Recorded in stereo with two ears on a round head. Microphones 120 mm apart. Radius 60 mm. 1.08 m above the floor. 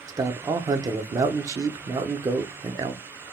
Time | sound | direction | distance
0.1 | a man speaking | 25° right (ahead or behind) | 0.6 m